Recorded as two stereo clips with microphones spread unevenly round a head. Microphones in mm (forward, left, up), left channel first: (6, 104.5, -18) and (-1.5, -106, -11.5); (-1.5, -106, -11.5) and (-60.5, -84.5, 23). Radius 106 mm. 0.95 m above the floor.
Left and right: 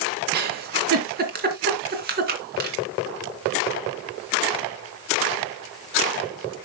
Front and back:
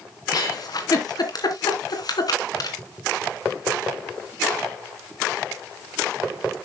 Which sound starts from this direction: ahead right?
A giggle, at 0.3 s.